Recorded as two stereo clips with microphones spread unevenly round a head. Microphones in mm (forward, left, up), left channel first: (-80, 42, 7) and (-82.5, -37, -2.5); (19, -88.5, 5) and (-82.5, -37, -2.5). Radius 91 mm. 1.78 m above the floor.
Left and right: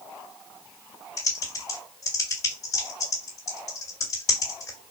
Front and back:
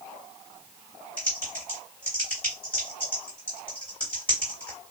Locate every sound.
1.2 s typing on a keyboard: 50° left, 2 m